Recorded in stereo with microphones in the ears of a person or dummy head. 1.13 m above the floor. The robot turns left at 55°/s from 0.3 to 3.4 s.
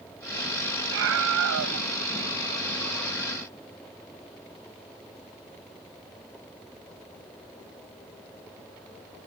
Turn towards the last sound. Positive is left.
turn(degrees=155)